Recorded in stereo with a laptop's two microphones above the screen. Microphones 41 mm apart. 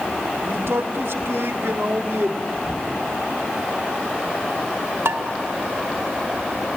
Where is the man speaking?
75° right (ahead or behind), 1.9 m.